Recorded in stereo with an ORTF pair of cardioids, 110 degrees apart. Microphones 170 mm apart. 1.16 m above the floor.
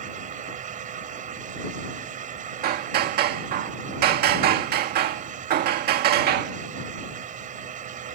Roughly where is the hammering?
Ahead right.